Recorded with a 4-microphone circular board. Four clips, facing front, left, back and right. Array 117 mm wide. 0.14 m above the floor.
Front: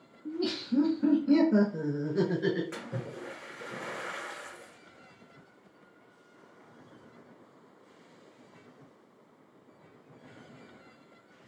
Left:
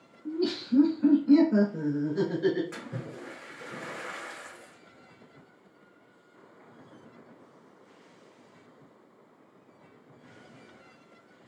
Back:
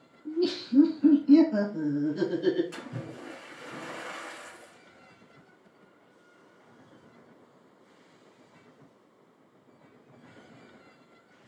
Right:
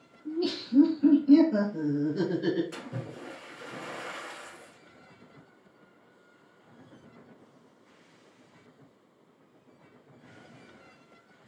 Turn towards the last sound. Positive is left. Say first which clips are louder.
# even, front 1 dB
turn(degrees=50)